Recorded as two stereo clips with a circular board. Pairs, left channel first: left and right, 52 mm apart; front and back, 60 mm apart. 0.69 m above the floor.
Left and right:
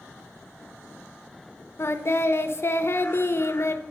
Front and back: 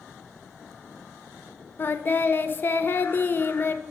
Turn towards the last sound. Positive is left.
turn(degrees=55)